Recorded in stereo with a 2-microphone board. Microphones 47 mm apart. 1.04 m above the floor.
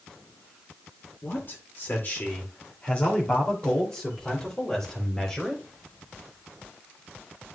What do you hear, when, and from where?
1.2 s a man speaking: 55° left (ahead or behind), 2 m; by 5.6 s 15° left (ahead or behind), 3.5 m